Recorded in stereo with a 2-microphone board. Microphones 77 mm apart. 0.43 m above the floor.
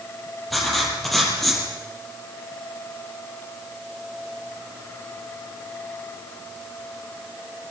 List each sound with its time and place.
0.5 s writing: centre (ahead or behind), 6.5 m